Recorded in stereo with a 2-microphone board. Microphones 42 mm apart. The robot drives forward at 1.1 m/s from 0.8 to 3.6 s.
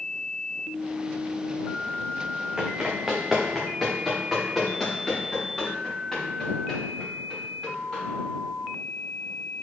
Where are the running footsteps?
20° right (ahead or behind), 1.4 m; by 8.0 s 10° left (ahead or behind), 6.5 m.